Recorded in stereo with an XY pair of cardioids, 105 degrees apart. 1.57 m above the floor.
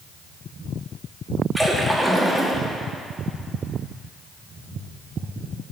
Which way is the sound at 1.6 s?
Straight ahead.